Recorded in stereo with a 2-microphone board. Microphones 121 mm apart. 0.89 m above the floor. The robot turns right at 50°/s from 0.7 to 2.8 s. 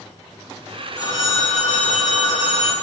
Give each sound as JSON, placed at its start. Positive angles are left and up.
{"t": 1.0, "sound": "a phone ringing", "azimuth_deg": 30, "distance_m": 2.0}